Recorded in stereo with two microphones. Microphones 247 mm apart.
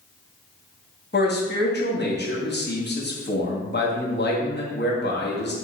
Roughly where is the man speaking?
Left.